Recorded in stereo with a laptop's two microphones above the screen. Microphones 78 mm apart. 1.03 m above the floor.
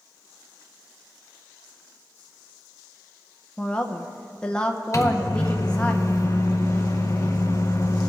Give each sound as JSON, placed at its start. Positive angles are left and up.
{"t": 3.6, "sound": "a woman speaking", "side_deg": 10, "distance_m": 0.7}
{"t": 4.9, "sound": "a microwave", "side_deg": 40, "distance_m": 0.7}